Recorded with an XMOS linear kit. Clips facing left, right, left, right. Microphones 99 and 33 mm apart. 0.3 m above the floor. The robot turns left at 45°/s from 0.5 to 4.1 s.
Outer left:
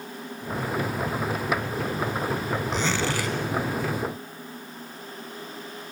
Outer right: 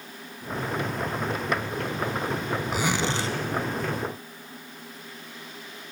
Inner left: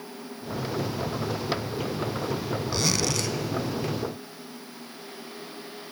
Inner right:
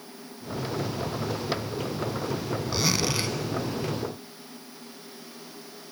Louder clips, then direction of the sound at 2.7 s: Outer right 1 dB, inner right 1 dB; 5° right (ahead or behind).